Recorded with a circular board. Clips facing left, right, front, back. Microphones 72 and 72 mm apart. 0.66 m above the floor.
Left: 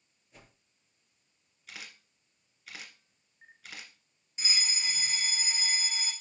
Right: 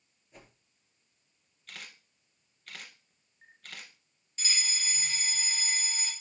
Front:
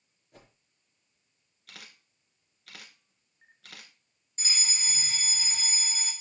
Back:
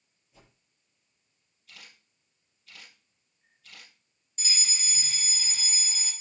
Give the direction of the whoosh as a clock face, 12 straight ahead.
12 o'clock.